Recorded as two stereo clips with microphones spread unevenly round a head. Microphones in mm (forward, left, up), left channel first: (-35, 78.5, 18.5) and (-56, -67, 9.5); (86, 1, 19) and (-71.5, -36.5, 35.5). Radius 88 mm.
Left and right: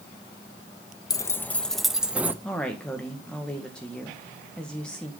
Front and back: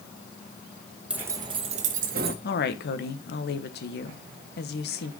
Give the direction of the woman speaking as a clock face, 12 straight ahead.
12 o'clock.